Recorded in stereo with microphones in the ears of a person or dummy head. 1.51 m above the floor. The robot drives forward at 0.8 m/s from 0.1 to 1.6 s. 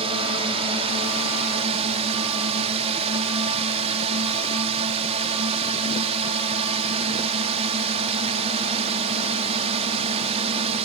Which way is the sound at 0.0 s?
35° right (ahead or behind).